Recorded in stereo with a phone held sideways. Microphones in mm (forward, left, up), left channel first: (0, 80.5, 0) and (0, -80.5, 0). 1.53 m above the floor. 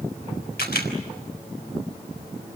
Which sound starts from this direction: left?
A camera shutter, at 0.6 s.